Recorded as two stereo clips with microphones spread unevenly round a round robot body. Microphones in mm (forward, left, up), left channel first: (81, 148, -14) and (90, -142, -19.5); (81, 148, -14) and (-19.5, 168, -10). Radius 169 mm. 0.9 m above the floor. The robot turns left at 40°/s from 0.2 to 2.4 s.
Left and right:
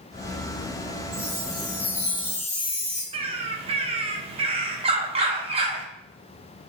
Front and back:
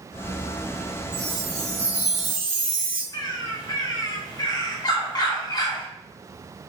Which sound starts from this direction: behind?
A chime, at 1.1 s.